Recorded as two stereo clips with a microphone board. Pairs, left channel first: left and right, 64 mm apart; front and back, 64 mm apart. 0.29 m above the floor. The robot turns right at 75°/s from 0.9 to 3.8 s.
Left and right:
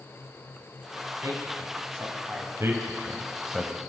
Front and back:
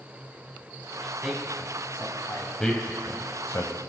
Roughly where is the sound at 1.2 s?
Right.